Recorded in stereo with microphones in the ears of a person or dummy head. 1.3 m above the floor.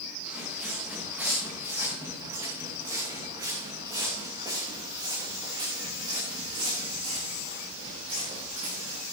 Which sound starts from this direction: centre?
Footsteps, at 0.2 s.